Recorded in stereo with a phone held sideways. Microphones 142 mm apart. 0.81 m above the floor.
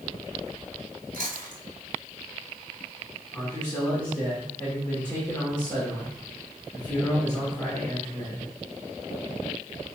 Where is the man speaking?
15° left (ahead or behind), 2.5 m.